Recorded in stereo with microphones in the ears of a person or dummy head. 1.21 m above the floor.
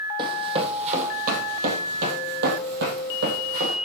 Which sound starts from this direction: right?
Running footsteps, at 0.2 s.